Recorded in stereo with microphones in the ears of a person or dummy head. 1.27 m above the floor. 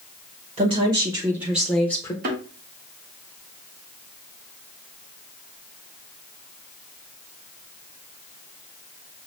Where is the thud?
45° right (ahead or behind), 1.3 m.